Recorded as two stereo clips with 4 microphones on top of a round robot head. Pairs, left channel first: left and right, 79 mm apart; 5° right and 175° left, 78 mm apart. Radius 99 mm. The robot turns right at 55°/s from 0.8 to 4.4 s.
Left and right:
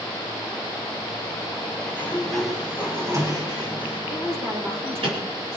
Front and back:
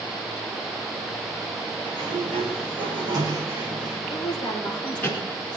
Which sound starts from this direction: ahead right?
A woman speaking, at 4.1 s.